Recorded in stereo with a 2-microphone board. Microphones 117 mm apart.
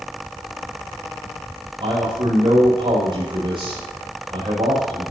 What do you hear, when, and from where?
1.8 s a man speaking: 50° right (ahead or behind), 7.5 m